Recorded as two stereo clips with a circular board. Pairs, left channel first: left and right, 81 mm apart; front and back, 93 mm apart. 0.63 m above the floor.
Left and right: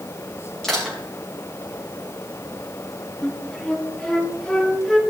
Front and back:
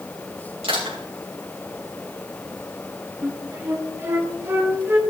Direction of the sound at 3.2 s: 160° left.